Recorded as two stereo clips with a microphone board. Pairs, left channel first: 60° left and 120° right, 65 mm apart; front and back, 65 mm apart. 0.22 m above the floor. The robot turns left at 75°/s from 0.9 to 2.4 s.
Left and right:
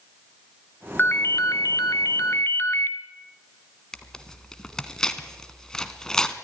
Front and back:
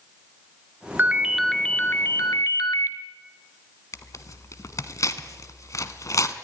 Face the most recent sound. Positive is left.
turn(degrees=-15)